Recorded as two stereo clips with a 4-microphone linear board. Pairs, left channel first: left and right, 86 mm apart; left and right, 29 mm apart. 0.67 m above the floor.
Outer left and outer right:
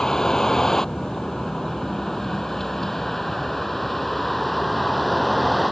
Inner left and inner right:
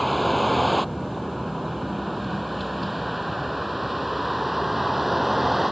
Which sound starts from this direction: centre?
A vehicle, at 0.0 s.